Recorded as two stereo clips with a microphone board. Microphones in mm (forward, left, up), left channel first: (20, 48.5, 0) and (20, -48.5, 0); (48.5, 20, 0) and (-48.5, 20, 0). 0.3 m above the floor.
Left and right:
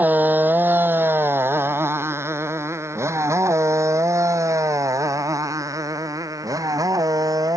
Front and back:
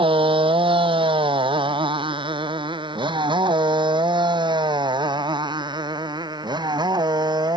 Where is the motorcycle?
160° right; by 7.6 s 140° right.